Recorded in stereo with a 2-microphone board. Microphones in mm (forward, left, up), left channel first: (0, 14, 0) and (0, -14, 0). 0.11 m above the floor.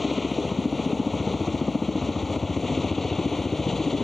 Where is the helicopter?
Centre (ahead or behind); by 4.0 s 10° left (ahead or behind).